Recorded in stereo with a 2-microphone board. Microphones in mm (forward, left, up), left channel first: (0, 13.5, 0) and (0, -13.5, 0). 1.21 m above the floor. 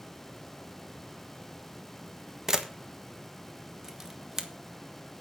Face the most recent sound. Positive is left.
turn(degrees=-20)  # may be behind; listen again after turning